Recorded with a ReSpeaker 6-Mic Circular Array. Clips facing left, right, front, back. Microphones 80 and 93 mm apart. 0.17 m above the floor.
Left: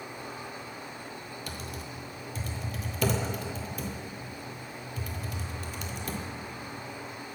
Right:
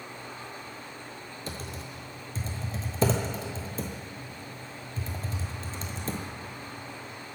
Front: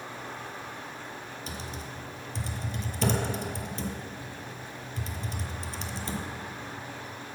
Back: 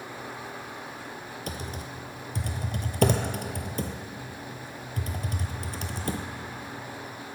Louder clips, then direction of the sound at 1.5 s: Right 3 dB, back 4 dB; 150° right.